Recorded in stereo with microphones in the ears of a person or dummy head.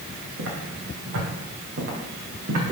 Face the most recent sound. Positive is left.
turn(degrees=-45)  # may be behind; listen again after turning